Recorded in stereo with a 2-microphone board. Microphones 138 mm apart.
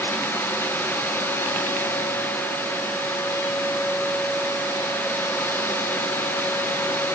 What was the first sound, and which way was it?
Only background noise.